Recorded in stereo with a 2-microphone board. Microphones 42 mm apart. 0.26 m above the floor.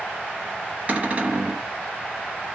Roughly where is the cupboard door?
Right.